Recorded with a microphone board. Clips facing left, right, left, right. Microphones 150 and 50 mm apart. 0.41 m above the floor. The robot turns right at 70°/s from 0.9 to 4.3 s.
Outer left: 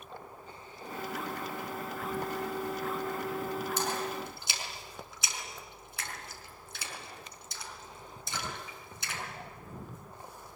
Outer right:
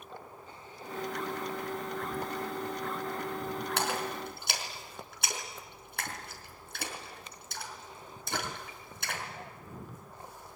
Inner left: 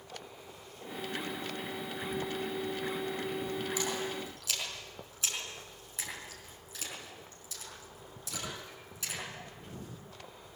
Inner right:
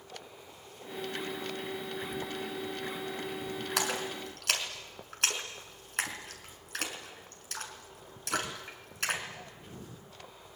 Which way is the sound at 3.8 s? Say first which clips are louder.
Even, inner right 2 dB; 75° right (ahead or behind).